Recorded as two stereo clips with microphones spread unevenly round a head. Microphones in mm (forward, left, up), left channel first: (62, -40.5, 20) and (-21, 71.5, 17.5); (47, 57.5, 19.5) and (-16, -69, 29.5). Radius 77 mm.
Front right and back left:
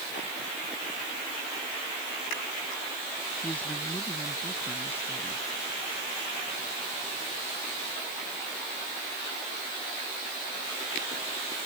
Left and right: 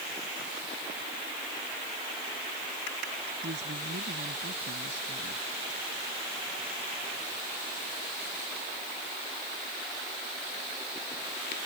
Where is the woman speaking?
135° right; by 5.4 s 130° right.